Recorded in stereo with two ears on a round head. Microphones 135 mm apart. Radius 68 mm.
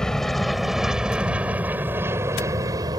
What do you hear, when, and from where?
0.0 s an aircraft: 5° left (ahead or behind); by 3.0 s 25° right (ahead or behind)